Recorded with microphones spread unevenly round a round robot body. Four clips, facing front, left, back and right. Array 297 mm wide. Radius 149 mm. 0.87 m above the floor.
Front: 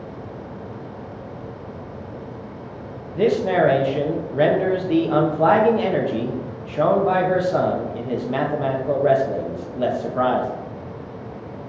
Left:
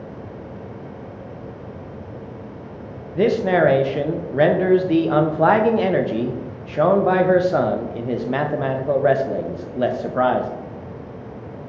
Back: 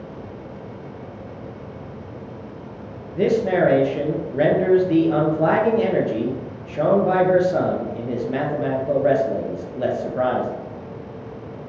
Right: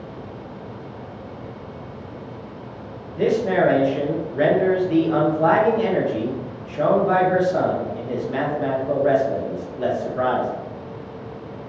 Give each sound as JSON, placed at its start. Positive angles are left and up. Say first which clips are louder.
{"t": 3.1, "sound": "a man speaking", "louder": "left 2 dB, even", "azimuth_deg": 85, "distance_m": 0.8}